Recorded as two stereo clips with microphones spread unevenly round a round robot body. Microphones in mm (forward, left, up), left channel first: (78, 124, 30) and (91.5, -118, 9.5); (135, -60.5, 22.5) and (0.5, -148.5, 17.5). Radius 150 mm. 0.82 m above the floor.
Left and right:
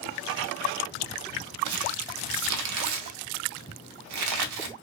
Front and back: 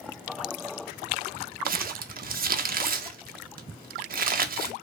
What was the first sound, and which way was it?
Crumpling, 110° right.